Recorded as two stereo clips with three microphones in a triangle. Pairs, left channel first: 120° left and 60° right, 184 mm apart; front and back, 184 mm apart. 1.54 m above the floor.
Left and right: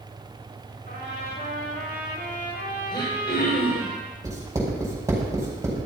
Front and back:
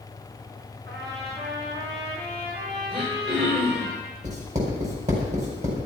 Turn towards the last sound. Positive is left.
turn(degrees=-135)